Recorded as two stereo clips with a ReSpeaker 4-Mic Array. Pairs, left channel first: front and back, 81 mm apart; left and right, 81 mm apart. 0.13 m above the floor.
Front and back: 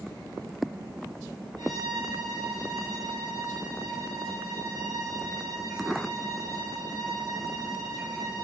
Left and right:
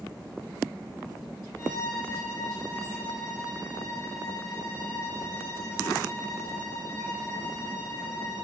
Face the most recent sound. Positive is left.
turn(degrees=145)